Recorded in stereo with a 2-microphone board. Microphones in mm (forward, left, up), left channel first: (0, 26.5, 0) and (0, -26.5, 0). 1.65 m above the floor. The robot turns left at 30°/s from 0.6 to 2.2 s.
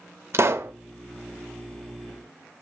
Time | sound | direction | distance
0.3 | a pop | 50° right (ahead or behind) | 0.5 m